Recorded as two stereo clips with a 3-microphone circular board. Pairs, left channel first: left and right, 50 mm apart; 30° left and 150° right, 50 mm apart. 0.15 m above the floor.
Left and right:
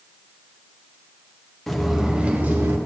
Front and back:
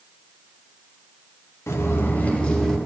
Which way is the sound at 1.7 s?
5° left.